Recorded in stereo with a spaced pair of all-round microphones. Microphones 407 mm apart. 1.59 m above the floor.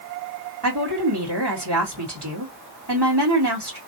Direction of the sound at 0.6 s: 75° right (ahead or behind).